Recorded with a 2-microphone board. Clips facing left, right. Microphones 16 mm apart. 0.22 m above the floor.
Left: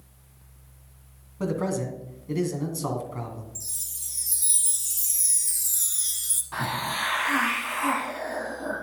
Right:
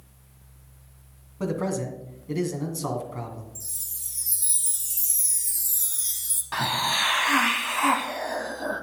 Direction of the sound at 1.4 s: 5° right (ahead or behind).